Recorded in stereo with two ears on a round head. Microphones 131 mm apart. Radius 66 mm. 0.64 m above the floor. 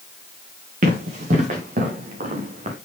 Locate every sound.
0.8 s running footsteps: 55° right (ahead or behind), 5 m; by 2.8 s 45° right (ahead or behind), 4 m